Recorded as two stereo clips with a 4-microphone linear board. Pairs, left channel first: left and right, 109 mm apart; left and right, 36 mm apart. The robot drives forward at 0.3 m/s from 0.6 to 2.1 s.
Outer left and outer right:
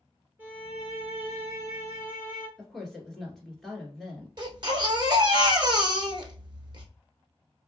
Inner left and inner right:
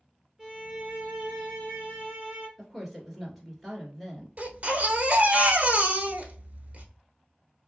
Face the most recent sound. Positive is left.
turn(degrees=-45)  # may be behind; listen again after turning